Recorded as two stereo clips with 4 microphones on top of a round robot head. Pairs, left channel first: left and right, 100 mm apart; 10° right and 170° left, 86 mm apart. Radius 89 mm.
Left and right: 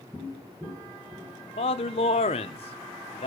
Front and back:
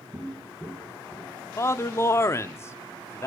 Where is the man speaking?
50° left, 0.8 m.